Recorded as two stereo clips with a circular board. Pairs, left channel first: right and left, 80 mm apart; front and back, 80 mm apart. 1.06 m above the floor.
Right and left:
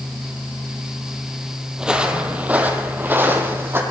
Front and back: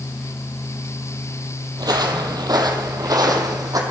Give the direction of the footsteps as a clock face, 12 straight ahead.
6 o'clock.